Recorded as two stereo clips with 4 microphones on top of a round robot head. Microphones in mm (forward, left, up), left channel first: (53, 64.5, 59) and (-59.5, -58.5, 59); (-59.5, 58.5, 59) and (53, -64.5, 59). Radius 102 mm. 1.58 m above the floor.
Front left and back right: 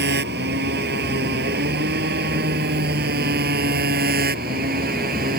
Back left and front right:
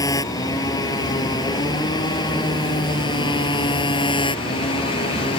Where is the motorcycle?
160° right; by 5.4 s 170° right.